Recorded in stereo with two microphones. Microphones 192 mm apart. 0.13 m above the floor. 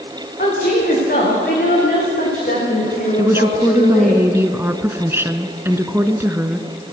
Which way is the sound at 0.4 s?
50° left (ahead or behind).